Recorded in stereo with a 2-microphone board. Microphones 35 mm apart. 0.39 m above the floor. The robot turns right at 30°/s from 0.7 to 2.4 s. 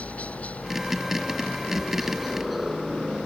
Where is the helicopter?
135° left; by 3.3 s 175° right.